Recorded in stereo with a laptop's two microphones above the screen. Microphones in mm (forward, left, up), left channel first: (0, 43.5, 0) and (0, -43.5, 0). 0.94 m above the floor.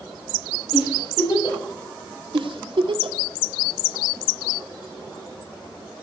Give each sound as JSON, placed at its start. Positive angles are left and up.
{"t": 0.7, "sound": "a giggle", "side_deg": 60, "distance_m": 5.5}
{"t": 2.3, "sound": "a giggle", "side_deg": -65, "distance_m": 1.5}